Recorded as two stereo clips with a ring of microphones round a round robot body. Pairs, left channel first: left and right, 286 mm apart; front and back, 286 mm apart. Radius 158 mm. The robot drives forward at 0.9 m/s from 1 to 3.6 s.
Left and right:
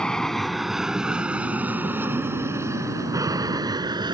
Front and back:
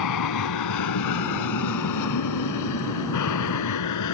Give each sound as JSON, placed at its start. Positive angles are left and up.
{"t": 0.0, "sound": "an aircraft", "azimuth_deg": 5}